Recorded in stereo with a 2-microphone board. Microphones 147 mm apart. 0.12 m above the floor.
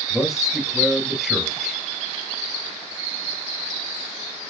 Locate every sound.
0.1 s a man speaking: centre (ahead or behind), 1.7 m